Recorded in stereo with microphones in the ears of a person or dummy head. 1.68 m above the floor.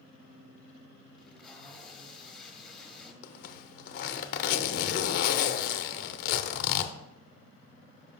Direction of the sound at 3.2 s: 60° left (ahead or behind).